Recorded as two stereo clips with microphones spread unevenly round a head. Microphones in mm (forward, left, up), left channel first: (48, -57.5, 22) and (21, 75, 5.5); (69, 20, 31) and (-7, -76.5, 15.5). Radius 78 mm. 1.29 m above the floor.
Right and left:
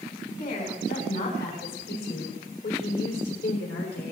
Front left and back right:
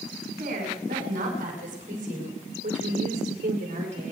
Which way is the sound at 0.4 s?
125° right.